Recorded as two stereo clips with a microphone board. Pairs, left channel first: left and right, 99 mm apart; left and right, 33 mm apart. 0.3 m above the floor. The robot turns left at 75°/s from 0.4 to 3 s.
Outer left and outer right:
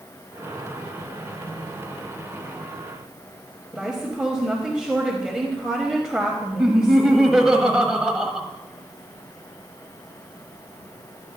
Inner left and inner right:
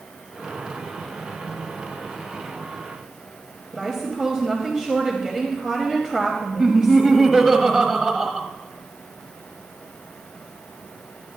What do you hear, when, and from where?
3.7 s a woman speaking: 5° right (ahead or behind), 1.1 m
6.6 s laughter: 5° right (ahead or behind), 1.3 m